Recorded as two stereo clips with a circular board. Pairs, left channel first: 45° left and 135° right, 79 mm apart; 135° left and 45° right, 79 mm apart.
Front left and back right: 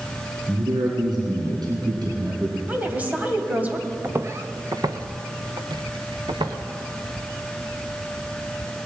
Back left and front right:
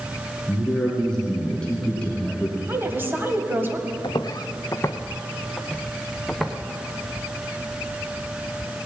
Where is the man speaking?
140° right, 4 m; by 2.6 s 150° right, 3 m.